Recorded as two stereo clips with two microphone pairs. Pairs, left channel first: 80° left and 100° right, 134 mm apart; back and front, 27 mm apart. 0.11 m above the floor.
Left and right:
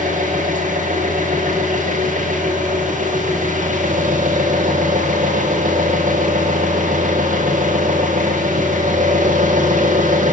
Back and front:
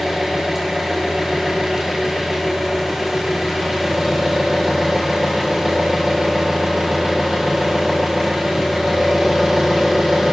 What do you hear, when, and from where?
0.0 s an engine running: 80° right, 9 m